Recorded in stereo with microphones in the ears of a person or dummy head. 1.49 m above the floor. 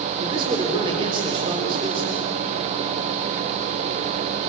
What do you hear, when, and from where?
0.2 s a man speaking: 30° right (ahead or behind), 4.5 m